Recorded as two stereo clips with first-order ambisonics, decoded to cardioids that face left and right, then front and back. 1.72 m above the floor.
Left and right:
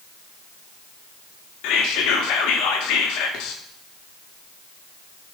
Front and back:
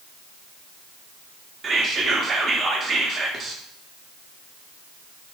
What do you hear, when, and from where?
1.6 s whispering: 110° left, 0.8 m